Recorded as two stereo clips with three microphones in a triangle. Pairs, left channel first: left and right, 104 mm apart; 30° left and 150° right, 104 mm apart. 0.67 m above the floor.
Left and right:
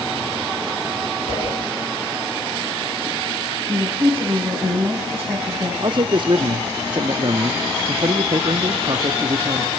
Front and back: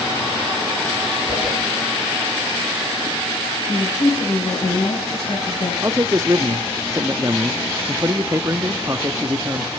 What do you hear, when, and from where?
1.3 s a whoosh: 105° left, 9 m
3.7 s a woman speaking: 15° right, 5.5 m
5.8 s a man speaking: 100° right, 0.9 m